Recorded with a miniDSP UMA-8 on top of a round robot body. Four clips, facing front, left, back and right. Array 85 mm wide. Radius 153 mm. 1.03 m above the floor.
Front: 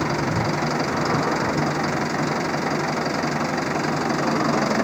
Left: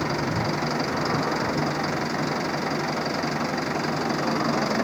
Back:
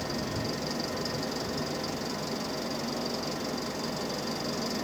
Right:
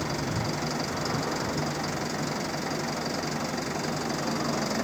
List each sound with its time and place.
0.0 s an engine running: 20° left